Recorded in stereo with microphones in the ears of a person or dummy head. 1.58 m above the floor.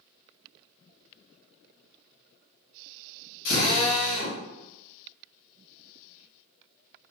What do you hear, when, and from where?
3.5 s a drill: 80° left, 2 m